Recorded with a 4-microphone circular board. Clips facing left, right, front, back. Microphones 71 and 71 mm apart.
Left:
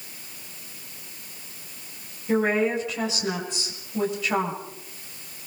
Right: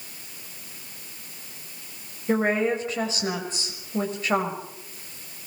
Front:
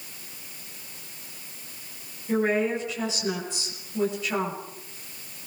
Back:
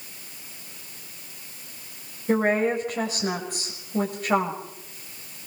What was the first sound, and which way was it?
A woman speaking, 140° right.